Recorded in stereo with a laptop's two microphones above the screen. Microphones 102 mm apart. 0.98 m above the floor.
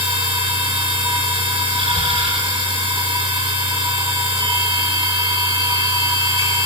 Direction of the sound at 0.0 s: 70° right (ahead or behind).